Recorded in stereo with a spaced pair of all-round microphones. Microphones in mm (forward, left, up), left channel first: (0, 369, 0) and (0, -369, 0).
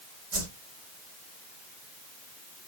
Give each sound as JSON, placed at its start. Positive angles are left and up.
{"t": 0.3, "sound": "a whoosh", "side_deg": -60, "distance_m": 1.8}